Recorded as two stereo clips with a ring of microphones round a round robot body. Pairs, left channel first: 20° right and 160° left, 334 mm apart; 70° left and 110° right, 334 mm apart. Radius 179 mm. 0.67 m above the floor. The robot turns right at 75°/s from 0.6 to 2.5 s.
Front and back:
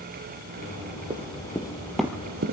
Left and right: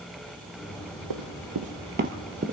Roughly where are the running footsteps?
Behind right.